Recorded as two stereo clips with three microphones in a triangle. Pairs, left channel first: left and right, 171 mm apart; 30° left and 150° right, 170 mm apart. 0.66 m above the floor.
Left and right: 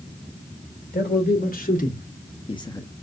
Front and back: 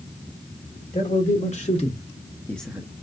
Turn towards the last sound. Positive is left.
turn(degrees=160)